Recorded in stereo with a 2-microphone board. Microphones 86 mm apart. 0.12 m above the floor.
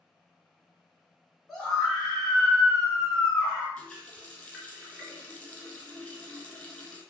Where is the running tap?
15° left (ahead or behind), 1.2 m.